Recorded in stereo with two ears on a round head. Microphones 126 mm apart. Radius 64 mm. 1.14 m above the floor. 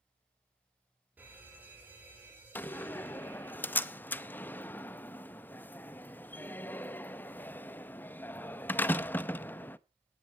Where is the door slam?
15° left (ahead or behind), 0.6 m.